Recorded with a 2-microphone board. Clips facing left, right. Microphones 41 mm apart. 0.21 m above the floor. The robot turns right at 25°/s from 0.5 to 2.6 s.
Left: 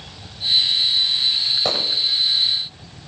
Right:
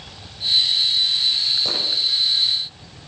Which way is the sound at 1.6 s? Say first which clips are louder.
Left 3 dB; 45° left (ahead or behind).